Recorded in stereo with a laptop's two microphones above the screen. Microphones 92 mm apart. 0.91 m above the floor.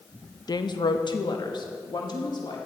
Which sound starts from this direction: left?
A woman speaking, at 0.5 s.